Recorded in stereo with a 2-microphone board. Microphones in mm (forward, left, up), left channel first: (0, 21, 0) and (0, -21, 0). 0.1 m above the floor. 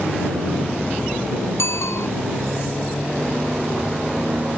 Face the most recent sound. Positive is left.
turn(degrees=75)  # may be behind; listen again after turning